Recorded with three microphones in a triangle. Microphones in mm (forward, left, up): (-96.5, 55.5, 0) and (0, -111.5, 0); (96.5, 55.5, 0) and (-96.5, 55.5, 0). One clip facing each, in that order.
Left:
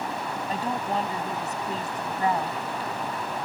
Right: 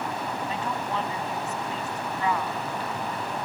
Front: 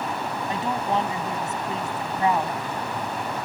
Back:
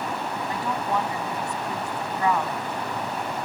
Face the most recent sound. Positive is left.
turn(degrees=70)